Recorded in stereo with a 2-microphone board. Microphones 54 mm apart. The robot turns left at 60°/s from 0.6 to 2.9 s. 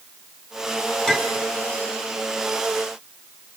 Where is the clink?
10° left (ahead or behind), 1.5 m; by 1.4 s 30° left (ahead or behind), 1.5 m.